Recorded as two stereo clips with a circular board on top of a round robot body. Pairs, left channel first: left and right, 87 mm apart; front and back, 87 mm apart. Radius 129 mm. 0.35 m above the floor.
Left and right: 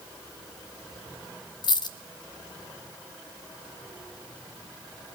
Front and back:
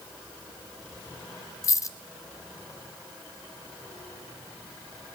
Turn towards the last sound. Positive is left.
turn(degrees=55)